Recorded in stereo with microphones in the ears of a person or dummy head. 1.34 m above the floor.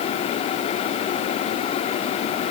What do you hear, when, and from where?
Only background noise.